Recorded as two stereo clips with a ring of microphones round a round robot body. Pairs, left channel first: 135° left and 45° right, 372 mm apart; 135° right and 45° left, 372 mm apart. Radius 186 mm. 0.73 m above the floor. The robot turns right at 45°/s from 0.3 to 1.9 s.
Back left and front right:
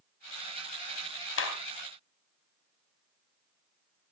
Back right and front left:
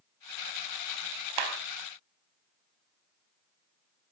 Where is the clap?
75° left, 3.5 m; by 1.5 s 80° left, 3.5 m.